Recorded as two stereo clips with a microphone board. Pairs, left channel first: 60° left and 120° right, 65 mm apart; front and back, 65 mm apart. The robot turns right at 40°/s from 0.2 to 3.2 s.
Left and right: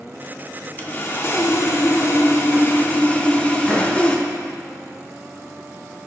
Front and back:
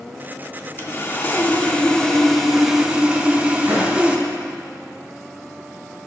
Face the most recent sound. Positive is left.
turn(degrees=125)